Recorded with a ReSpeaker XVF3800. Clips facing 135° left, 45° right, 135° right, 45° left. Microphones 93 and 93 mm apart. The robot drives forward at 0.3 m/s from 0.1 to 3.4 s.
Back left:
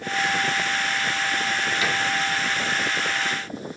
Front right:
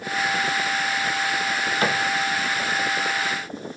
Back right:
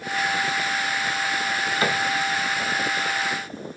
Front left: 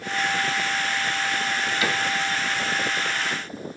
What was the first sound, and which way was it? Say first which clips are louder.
A cupboard door: front right 5 dB, back right 3 dB; 80° right.